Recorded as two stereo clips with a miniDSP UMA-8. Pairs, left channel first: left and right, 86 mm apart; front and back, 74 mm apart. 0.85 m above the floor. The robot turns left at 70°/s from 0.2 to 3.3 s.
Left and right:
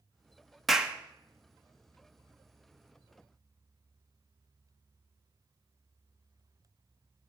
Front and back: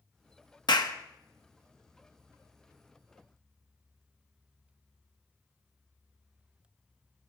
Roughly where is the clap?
Ahead.